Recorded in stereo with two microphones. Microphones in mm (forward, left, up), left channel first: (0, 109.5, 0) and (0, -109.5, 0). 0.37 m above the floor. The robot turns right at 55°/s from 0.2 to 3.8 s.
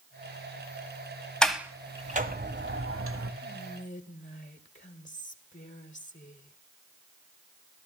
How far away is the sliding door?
About 1.3 m.